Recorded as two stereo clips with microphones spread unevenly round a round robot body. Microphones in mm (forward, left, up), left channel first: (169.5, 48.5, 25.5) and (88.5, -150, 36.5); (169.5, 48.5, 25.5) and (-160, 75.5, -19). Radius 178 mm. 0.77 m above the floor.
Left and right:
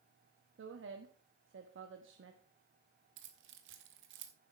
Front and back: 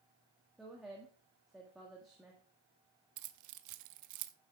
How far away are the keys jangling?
About 0.6 m.